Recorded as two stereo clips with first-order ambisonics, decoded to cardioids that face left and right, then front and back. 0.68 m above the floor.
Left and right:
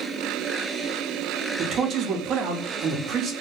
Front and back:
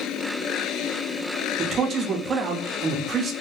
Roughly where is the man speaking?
Behind right.